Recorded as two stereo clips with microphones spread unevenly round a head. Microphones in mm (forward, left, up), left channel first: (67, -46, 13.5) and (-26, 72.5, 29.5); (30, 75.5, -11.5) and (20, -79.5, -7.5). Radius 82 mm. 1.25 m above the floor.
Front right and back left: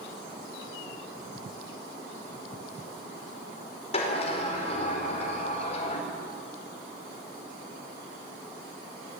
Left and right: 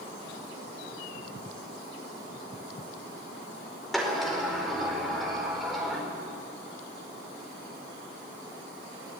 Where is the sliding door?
5° right, 5 m.